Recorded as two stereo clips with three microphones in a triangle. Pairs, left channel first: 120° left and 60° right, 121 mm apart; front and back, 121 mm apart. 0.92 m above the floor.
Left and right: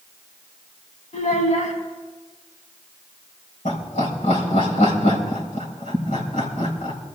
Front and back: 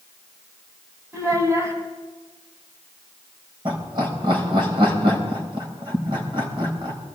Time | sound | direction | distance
1.1 | a child speaking | 115° left | 3.5 m
3.6 | laughter | 135° left | 4.5 m